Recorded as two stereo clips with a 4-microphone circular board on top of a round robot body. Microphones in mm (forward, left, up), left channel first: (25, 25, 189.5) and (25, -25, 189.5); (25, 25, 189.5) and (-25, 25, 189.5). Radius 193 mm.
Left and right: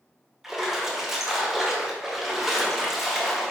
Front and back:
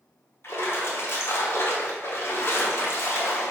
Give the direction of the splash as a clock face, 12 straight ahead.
12 o'clock.